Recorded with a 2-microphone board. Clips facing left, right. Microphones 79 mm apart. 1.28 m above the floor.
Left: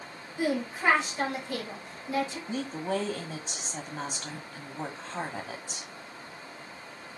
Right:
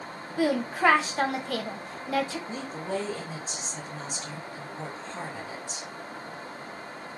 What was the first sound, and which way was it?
A woman speaking, 70° right (ahead or behind).